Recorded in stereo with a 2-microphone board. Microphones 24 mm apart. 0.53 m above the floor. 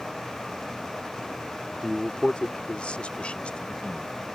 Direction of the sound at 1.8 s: 30° left (ahead or behind).